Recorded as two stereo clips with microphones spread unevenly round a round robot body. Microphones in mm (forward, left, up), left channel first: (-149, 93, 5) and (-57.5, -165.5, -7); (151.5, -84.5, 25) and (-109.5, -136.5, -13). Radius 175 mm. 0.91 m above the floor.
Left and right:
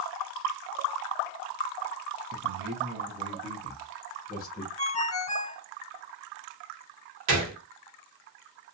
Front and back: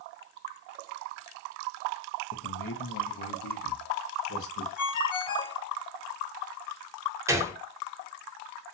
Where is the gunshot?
85° right, 1.0 m.